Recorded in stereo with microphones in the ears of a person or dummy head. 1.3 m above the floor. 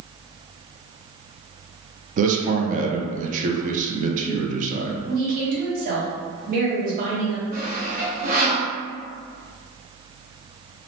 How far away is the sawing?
About 0.8 m.